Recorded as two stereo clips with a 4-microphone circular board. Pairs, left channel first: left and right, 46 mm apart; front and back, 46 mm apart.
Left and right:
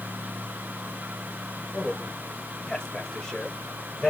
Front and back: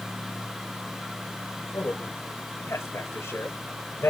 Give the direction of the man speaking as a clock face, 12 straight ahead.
12 o'clock.